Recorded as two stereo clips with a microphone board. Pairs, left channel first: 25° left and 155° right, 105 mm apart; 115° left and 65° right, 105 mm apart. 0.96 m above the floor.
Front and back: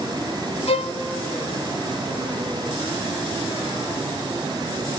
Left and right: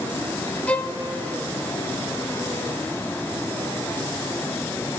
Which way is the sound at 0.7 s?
35° left.